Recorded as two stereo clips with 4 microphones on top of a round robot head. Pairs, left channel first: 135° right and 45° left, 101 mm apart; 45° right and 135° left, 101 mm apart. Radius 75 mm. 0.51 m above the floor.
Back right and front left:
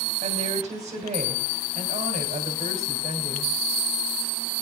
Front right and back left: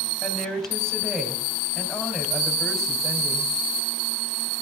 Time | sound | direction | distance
0.2 | a woman speaking | 40° left | 3.5 m